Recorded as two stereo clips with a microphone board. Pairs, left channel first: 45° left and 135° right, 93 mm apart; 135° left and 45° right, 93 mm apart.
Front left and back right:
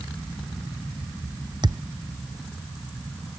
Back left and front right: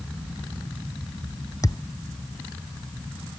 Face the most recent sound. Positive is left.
turn(degrees=-175)